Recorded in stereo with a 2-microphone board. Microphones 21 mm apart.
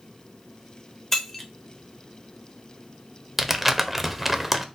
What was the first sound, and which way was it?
Breaking glass, 15° left (ahead or behind).